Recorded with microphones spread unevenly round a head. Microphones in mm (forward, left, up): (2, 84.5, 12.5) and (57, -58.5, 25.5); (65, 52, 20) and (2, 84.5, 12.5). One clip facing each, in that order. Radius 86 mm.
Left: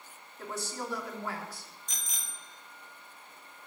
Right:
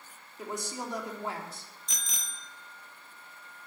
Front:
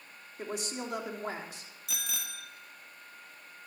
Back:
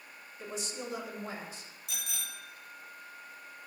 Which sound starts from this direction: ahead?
A woman speaking, at 0.4 s.